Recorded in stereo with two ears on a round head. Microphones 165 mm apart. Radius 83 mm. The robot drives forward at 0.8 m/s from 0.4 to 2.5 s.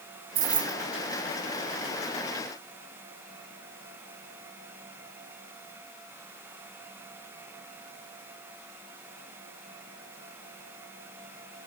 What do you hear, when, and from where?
0.3 s keys jangling: 30° right (ahead or behind), 0.5 m; by 0.8 s 20° right (ahead or behind), 0.7 m